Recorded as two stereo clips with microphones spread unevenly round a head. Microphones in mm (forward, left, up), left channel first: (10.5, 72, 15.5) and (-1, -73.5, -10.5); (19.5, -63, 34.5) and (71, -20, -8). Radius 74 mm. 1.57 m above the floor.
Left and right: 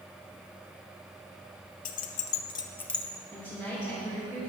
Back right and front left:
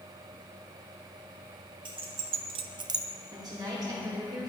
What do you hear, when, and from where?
1.9 s keys jangling: 105° left, 1.0 m; by 3.0 s straight ahead, 1.2 m
3.3 s a woman speaking: 15° left, 4.5 m